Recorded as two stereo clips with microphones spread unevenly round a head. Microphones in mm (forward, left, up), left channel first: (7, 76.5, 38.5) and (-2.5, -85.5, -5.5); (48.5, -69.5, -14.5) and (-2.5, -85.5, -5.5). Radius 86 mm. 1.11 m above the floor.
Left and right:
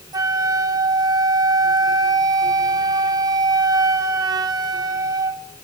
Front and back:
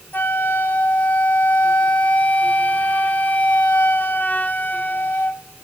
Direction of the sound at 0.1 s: 20° right.